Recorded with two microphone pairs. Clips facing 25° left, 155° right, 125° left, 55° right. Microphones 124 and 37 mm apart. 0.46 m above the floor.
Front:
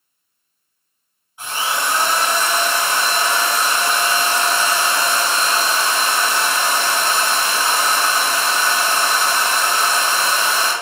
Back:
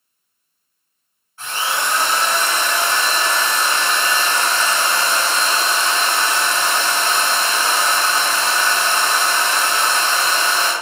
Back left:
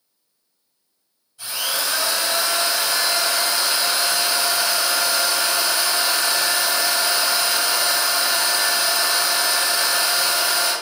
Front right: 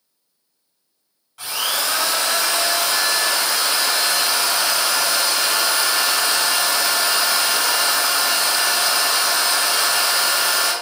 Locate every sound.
1.4 s a drill: 50° right, 2.5 m